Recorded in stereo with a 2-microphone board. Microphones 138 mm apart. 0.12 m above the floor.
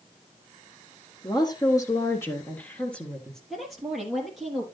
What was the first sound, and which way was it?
A woman speaking, 30° left (ahead or behind).